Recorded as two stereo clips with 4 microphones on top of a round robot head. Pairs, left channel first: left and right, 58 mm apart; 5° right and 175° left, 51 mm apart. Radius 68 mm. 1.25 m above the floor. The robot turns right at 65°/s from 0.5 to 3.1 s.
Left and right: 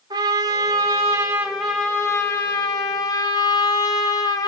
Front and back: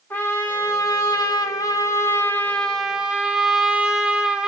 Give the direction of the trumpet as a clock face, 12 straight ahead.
2 o'clock.